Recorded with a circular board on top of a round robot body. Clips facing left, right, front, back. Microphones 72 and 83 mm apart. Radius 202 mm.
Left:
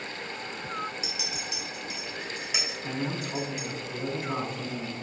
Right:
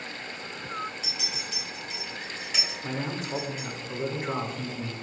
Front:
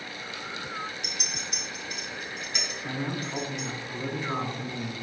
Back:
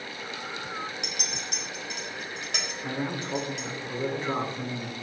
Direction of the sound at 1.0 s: 170° left.